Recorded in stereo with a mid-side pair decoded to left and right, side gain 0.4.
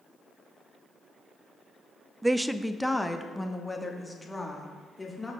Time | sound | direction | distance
2.2 | a woman speaking | 15° right | 0.5 m